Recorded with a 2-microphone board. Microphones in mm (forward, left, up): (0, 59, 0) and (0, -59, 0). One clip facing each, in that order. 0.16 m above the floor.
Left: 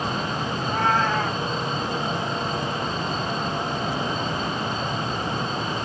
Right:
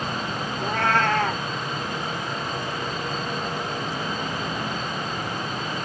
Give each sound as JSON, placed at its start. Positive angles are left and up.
{"t": 0.6, "sound": "a cat meowing", "side_deg": -75, "distance_m": 1.0}